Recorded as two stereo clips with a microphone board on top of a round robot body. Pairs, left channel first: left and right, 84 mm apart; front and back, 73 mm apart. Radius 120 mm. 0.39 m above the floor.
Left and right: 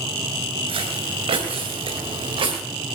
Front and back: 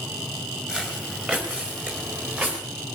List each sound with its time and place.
0.7 s footsteps: 100° right, 3.5 m; by 2.6 s 110° right, 5 m